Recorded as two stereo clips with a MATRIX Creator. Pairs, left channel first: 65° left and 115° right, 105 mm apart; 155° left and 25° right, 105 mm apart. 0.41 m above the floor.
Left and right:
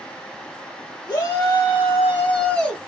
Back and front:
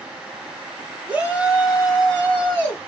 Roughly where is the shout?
Ahead left.